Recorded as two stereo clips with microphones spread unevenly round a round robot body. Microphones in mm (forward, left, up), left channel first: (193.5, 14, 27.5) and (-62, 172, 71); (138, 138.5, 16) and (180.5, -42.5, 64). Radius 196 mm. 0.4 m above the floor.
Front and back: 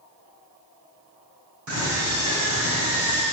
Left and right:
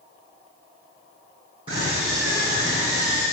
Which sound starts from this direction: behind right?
A scream, at 1.7 s.